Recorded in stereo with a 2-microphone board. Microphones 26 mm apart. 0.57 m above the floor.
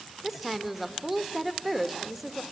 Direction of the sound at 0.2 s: 10° right (ahead or behind).